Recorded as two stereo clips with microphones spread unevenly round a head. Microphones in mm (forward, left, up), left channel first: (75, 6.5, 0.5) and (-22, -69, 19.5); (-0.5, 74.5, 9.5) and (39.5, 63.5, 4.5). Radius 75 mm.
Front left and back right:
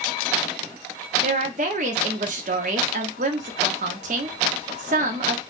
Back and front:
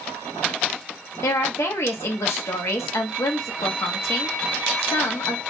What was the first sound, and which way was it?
A woman speaking, 175° left.